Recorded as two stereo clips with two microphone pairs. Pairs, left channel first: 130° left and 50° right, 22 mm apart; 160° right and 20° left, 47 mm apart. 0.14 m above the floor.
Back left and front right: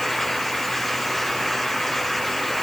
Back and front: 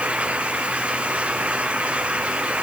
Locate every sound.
Only background noise.